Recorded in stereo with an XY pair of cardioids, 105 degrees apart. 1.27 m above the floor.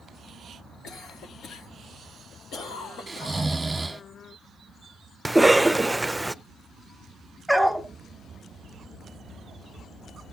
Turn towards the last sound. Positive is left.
turn(degrees=0)